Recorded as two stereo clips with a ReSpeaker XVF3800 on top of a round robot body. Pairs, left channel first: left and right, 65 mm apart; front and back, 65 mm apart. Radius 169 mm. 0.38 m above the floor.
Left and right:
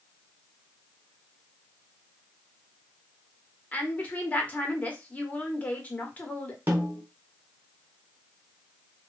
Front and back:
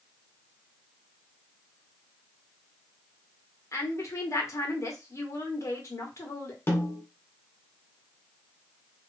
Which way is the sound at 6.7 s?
40° right.